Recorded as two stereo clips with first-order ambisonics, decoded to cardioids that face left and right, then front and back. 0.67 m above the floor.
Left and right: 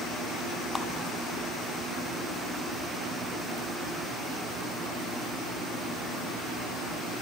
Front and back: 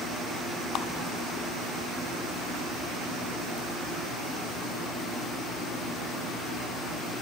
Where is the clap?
20° left, 0.8 m.